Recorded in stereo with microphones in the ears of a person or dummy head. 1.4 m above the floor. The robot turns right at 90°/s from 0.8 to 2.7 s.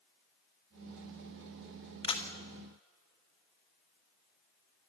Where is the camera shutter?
30° left (ahead or behind), 1.9 m; by 2.3 s 10° left (ahead or behind), 1.9 m.